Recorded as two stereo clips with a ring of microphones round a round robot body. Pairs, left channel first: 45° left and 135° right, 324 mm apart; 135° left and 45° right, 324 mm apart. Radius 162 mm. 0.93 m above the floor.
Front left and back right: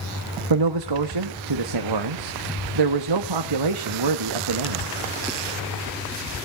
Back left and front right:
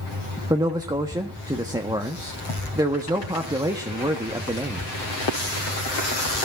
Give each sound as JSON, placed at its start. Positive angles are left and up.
{"t": 0.5, "sound": "a man speaking", "azimuth_deg": -125, "distance_m": 1.3}